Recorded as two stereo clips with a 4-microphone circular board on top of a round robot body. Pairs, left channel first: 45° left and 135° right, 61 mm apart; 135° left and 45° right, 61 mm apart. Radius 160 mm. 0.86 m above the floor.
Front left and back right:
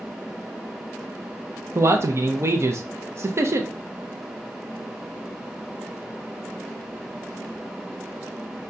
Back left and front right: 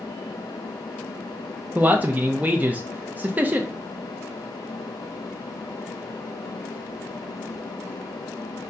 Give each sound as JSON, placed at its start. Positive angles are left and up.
{"t": 1.8, "sound": "a man speaking", "azimuth_deg": -105, "distance_m": 0.7}